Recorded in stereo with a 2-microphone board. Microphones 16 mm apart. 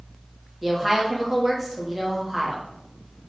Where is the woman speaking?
15° right (ahead or behind), 1.0 m.